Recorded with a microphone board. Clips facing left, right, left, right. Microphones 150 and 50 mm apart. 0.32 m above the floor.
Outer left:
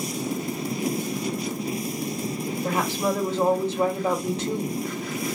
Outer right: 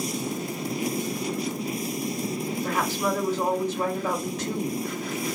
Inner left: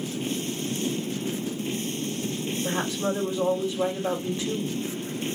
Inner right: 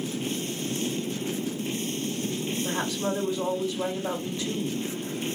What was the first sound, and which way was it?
A woman speaking, 30° left (ahead or behind).